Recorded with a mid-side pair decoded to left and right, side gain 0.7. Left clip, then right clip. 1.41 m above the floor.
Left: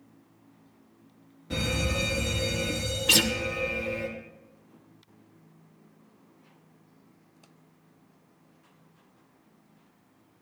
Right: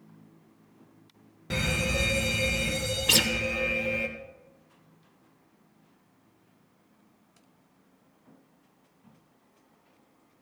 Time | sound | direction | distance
1.5 | a fire alarm | 45° right | 2.5 m
3.1 | a guitar | 5° right | 0.7 m